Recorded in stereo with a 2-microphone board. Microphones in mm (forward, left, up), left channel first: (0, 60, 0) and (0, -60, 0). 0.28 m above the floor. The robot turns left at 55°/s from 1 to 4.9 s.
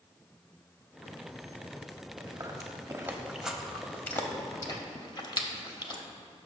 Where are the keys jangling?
No keys jangling in this recording.